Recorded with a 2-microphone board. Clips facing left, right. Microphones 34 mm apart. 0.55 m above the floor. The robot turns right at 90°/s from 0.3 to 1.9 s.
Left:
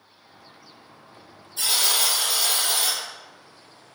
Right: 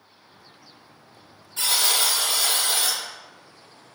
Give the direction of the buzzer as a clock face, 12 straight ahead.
3 o'clock.